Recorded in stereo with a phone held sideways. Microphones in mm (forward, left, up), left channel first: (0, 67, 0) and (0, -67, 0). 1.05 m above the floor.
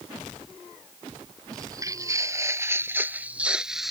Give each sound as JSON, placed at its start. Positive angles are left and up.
{"t": 1.5, "sound": "footsteps", "side_deg": -25}